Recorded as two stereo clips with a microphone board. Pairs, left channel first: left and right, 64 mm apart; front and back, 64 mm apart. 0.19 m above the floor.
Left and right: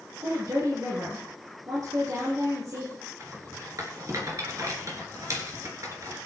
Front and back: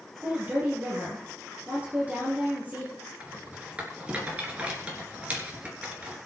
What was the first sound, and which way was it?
A woman speaking, 115° right.